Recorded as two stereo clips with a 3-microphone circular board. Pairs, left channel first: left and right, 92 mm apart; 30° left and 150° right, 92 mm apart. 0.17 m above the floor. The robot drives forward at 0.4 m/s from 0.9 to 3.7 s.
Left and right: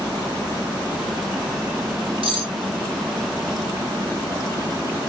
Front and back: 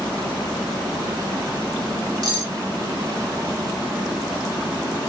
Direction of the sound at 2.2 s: 105° right.